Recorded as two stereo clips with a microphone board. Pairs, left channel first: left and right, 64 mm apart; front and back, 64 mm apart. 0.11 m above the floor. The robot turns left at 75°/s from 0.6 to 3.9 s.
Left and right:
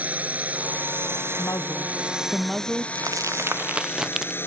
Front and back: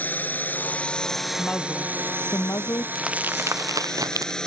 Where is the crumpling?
100° right; by 4.4 s 170° right.